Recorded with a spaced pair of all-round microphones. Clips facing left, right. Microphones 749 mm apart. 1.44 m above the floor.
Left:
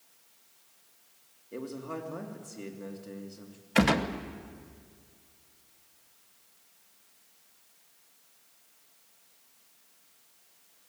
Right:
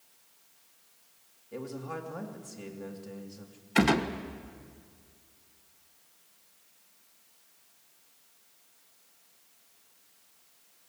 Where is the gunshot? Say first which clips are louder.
Even; 10° left (ahead or behind), 1.1 m.